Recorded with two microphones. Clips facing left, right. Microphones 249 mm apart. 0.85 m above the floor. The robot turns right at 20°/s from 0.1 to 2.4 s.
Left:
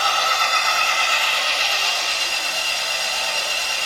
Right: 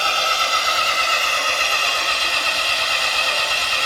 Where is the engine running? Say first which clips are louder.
Even; 155° right, 1.8 m; by 3.9 s 110° right, 1.8 m.